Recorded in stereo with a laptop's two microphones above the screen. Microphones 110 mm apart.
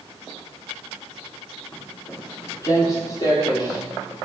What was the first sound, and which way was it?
Footsteps, 25° left (ahead or behind).